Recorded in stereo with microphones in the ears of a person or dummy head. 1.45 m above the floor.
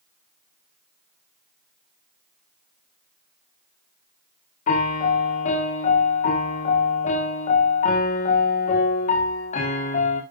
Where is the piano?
35° left (ahead or behind), 1.5 m.